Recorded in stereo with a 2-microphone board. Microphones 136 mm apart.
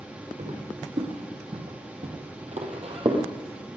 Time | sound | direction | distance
0.4 | footsteps | 60° right (ahead or behind) | 4.5 m